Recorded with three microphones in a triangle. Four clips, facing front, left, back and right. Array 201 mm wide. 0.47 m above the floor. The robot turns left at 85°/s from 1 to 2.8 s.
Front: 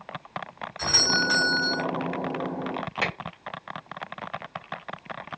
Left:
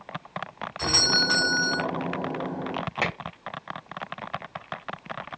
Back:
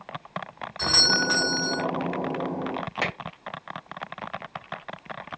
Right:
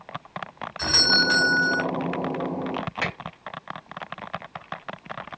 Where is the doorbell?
175° right, 2.5 m; by 1.8 s 115° left, 2.5 m.